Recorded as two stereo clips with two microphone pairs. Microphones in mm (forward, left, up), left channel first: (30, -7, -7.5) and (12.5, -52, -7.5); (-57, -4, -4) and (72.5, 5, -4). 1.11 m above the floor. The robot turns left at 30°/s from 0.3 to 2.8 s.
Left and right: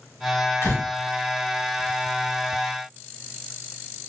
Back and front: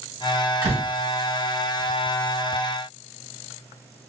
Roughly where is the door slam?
Left.